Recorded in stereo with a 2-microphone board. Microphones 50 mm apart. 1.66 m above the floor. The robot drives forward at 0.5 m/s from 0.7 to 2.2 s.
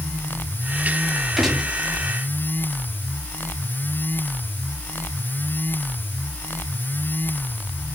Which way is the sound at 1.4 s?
5° right (ahead or behind).